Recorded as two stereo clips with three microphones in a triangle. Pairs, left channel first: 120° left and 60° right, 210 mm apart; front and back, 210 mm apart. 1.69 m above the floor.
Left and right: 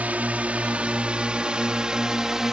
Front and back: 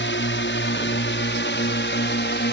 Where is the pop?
I don't hear a pop.